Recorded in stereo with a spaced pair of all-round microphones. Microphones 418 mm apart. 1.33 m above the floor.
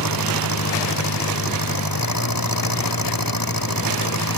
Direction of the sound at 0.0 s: 55° left (ahead or behind).